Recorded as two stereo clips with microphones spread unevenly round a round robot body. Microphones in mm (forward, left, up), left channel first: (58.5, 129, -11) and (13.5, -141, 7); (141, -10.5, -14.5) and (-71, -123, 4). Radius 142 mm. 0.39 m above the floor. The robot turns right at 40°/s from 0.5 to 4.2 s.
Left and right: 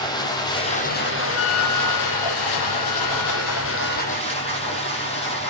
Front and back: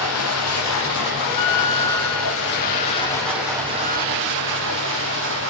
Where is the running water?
5° left, 8.5 m; by 5.5 s 155° left, 8.5 m.